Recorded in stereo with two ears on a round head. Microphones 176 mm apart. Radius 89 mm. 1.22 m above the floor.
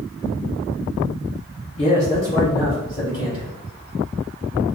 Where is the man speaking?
30° left (ahead or behind), 1.8 m; by 3.5 s 20° left (ahead or behind), 4.5 m.